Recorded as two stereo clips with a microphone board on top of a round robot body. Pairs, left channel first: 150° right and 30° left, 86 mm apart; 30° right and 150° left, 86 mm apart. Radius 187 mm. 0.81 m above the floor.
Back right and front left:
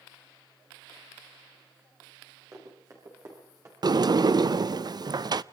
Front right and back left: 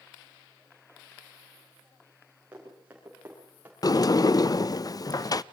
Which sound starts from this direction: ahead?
A sliding door, at 3.8 s.